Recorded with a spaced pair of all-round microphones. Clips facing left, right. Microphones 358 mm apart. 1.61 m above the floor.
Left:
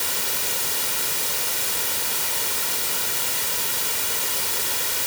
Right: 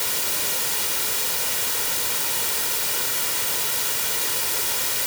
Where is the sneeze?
No sneeze in this recording.